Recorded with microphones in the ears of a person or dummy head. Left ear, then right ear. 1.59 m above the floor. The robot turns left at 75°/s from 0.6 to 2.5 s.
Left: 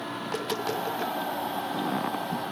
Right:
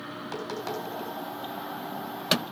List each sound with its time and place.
0.2 s tapping: 5° right (ahead or behind), 2.5 m; by 1.1 s 30° left (ahead or behind), 2.5 m